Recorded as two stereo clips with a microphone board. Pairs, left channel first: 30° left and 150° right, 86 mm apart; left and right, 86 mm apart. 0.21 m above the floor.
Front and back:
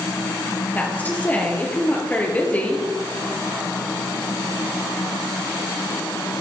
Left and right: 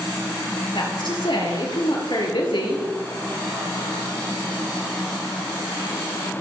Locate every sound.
0.8 s a woman speaking: 100° left, 4.5 m